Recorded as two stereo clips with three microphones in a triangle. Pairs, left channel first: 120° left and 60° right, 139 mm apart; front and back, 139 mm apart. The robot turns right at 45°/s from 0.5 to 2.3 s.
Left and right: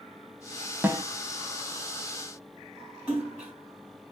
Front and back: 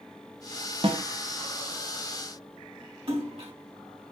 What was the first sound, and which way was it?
A snare drum, 135° right.